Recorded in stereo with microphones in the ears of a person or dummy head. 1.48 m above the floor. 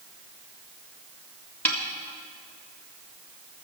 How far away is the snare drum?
About 1.5 m.